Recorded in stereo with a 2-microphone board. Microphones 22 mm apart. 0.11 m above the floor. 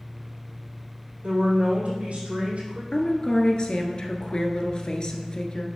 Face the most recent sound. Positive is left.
turn(degrees=40)  # may be behind; listen again after turning